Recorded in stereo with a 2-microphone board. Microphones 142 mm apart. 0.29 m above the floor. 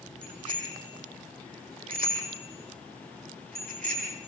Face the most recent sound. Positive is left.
turn(degrees=-85)